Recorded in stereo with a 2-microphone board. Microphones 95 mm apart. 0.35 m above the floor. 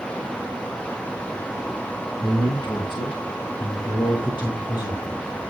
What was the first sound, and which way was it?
A man speaking, 60° left (ahead or behind).